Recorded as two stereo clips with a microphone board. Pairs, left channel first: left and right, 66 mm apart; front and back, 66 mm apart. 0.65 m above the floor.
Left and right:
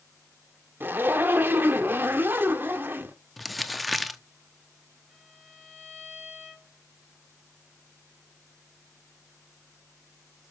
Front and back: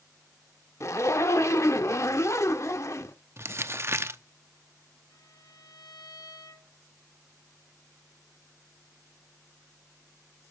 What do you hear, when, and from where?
0.8 s a zipper: 35° right, 1.6 m
3.4 s crumpling: straight behind, 0.9 m
5.1 s a violin: 15° right, 6 m